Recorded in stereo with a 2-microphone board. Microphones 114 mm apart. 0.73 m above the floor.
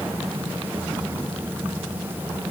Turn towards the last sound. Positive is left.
No sound to turn to.